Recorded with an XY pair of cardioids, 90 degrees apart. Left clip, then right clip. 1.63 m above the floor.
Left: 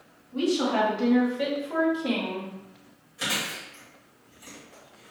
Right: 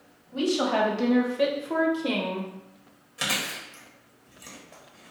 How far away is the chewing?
About 1.4 m.